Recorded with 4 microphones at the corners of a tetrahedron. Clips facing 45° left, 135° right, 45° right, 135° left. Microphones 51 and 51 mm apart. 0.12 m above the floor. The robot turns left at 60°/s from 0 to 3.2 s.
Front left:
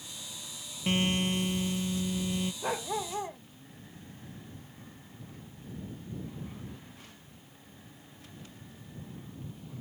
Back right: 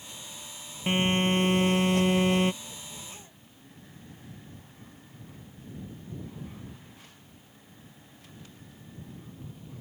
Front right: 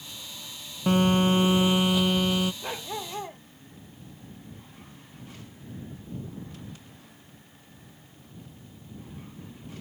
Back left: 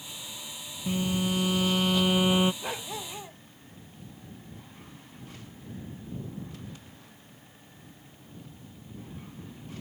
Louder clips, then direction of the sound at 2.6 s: Front left 12 dB, front right 1 dB; 50° left.